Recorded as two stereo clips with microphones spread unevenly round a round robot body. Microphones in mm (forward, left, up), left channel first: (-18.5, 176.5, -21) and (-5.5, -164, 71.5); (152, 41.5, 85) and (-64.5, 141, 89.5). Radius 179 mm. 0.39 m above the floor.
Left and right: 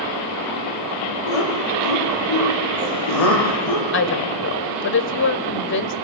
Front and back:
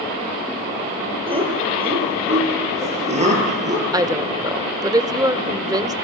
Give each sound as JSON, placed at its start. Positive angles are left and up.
{"t": 1.3, "sound": "laughter", "azimuth_deg": 85, "distance_m": 9.0}
{"t": 3.9, "sound": "a woman speaking", "azimuth_deg": 85, "distance_m": 1.6}